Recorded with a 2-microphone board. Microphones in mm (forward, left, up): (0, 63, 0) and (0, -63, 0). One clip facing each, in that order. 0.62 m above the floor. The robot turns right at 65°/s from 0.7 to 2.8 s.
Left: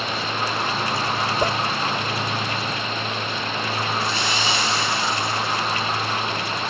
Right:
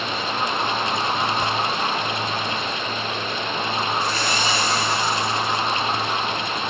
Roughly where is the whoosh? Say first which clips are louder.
Left 2 dB; left.